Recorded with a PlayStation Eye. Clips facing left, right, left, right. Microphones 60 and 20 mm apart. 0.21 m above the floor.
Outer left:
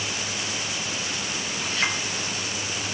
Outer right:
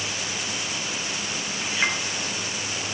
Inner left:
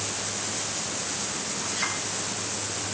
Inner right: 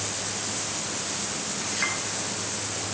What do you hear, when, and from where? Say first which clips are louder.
1.6 s a clink: outer right 2 dB, inner right 2 dB; 10° right (ahead or behind), 2 m